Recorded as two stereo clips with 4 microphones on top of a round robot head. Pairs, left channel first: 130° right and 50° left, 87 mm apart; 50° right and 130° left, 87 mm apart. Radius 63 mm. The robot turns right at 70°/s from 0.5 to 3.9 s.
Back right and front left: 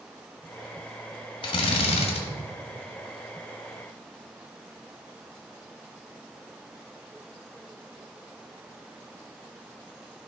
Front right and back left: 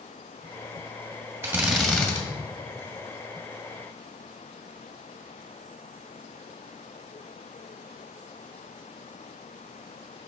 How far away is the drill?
About 1.7 m.